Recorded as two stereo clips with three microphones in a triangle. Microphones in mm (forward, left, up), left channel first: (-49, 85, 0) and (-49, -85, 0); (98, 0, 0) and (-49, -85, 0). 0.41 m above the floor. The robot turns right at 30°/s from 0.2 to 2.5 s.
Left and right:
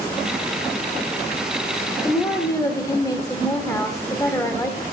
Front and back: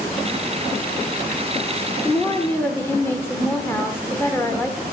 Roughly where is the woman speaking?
Ahead left.